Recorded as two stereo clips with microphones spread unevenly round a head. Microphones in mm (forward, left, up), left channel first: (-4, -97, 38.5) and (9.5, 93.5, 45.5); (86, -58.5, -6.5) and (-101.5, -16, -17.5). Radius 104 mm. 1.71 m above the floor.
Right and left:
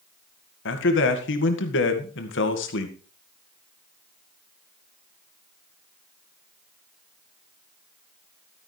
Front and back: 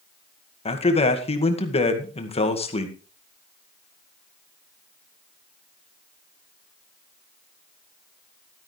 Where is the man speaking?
70° right, 2 m.